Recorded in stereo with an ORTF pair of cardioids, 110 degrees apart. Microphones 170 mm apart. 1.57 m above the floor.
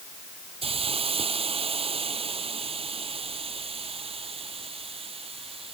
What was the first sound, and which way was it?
A hiss, 35° right.